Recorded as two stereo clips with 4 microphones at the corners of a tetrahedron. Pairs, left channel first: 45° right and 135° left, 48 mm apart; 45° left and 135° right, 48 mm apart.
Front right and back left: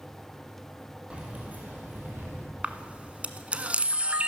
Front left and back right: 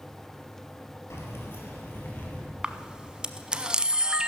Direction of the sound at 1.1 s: 70° left.